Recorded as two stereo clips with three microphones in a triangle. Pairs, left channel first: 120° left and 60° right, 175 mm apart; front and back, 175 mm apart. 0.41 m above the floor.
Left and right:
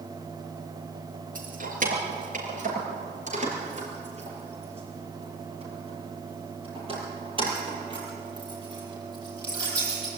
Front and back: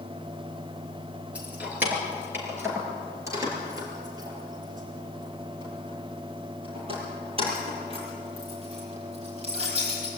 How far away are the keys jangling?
About 4.5 m.